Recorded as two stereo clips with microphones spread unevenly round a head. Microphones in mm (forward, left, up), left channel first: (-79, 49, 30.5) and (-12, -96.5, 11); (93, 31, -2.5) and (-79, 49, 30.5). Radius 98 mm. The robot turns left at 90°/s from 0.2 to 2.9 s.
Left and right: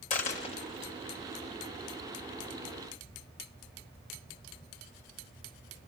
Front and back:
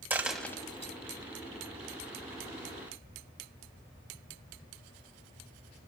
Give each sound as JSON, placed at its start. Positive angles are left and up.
{"t": 0.1, "sound": "a dropped coin", "azimuth_deg": 110, "distance_m": 1.9}